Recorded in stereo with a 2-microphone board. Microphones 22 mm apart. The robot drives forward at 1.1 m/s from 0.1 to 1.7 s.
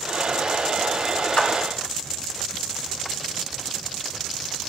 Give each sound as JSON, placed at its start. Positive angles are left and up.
{"t": 1.4, "sound": "a clap", "side_deg": 40, "distance_m": 1.0}